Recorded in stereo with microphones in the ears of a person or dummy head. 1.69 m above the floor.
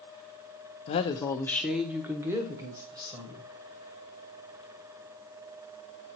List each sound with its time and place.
0.9 s a woman speaking: 30° left (ahead or behind), 0.5 m; by 3.5 s 25° right (ahead or behind), 1.6 m